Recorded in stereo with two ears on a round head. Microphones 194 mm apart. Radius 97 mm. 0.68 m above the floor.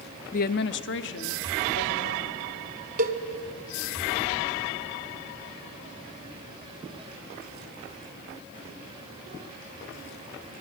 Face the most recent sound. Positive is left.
turn(degrees=-40)  # may be behind; listen again after turning